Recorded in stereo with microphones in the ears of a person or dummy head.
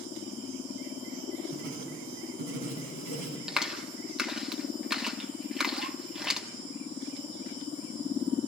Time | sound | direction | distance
1.5 | writing | 75° right (ahead or behind) | 5 m
3.5 | a clap | centre (ahead or behind) | 1.3 m